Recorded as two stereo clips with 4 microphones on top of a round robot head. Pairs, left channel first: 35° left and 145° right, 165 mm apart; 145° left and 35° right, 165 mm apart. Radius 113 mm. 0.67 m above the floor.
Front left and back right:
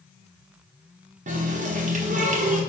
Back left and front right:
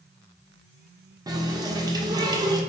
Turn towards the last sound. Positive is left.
turn(degrees=-105)